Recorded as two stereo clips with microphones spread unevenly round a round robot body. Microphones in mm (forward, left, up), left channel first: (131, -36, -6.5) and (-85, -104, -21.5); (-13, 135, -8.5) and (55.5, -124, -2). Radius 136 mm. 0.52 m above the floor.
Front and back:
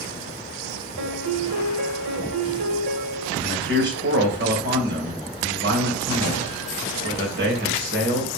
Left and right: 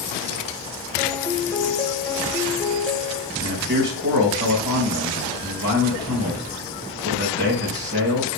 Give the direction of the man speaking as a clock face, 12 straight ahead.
4 o'clock.